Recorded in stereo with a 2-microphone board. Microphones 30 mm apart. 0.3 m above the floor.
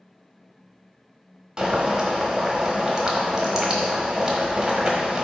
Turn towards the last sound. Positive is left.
turn(degrees=-20)  # may be behind; listen again after turning